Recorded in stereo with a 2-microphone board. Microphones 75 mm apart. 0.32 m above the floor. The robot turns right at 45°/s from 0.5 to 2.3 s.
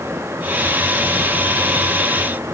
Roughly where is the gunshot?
No gunshot in this recording.